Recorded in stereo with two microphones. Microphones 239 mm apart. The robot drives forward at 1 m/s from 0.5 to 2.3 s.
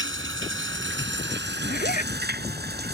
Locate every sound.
0.0 s running water: 55° right (ahead or behind); by 2.9 s 45° right (ahead or behind)
1.6 s a zipper: 45° left (ahead or behind); by 2.1 s 35° left (ahead or behind)